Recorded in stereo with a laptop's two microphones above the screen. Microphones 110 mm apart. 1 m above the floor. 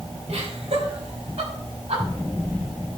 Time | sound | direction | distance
0.3 | laughter | 80° right | 6 m